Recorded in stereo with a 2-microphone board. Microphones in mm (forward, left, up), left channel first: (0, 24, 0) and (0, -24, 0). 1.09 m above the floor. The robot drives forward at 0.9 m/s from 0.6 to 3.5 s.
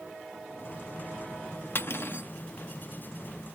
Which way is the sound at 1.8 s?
55° left (ahead or behind).